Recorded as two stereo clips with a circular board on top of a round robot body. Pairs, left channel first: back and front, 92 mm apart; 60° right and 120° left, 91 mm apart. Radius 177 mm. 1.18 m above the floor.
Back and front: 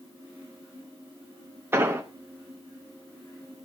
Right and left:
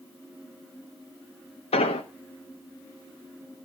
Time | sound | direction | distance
1.7 | an explosion | 65° right | 0.5 m